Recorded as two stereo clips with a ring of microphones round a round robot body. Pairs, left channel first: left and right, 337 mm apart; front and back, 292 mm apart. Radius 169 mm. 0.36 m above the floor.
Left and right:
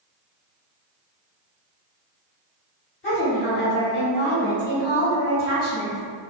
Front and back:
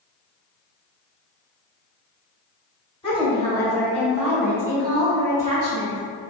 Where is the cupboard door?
No cupboard door in this recording.